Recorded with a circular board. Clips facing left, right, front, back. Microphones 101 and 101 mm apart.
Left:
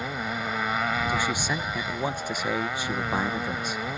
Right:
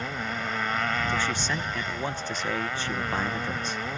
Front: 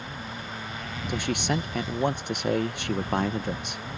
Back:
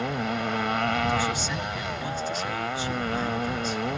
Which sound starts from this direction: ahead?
A man speaking, at 1.1 s.